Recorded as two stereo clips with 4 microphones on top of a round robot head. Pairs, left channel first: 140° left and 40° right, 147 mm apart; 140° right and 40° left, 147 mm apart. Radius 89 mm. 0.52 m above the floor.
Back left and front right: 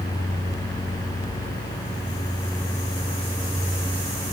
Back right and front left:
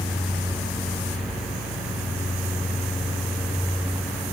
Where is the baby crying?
No baby crying in this recording.